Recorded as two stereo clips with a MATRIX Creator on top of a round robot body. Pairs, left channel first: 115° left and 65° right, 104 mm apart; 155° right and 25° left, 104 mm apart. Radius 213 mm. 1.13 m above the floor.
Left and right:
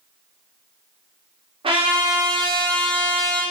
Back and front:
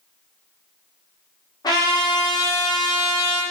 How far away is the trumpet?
About 1.8 m.